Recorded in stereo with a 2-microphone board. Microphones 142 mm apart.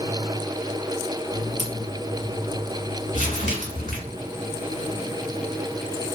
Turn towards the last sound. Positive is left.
turn(degrees=60)  # may be behind; listen again after turning